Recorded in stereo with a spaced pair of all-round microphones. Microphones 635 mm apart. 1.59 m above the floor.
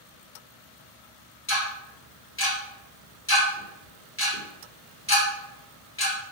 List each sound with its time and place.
1.5 s ticking: 20° left (ahead or behind), 0.8 m